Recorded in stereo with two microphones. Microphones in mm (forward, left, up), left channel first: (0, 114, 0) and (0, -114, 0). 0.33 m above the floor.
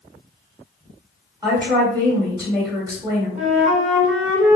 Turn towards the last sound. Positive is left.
turn(degrees=-35)  # may be behind; listen again after turning